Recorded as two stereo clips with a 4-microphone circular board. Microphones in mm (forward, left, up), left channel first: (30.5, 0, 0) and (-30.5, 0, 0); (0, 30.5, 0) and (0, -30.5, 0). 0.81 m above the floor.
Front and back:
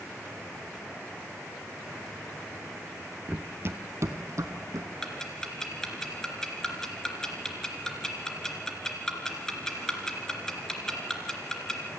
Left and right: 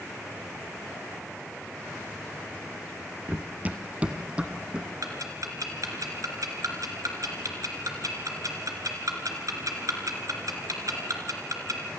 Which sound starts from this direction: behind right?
Running footsteps, at 3.3 s.